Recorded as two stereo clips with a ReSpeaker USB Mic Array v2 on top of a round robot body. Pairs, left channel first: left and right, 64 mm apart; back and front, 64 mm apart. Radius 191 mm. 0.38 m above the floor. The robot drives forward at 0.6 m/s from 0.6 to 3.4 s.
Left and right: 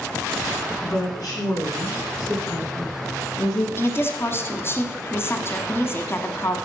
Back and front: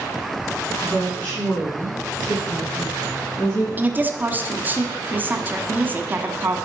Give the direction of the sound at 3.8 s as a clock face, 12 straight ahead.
10 o'clock.